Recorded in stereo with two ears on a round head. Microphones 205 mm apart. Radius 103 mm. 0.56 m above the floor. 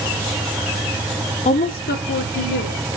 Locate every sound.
1.4 s a woman speaking: 30° left (ahead or behind), 0.7 m; by 2.9 s 50° left (ahead or behind), 2.5 m